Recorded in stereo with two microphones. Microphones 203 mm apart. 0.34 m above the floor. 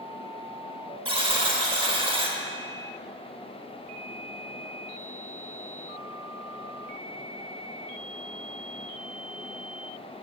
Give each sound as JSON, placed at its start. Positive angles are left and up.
{"t": 1.1, "sound": "a buzzer", "side_deg": -25, "distance_m": 0.9}